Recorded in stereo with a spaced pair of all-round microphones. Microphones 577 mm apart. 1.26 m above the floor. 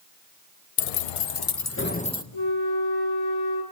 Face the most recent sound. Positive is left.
turn(degrees=55)  # may be behind; listen again after turning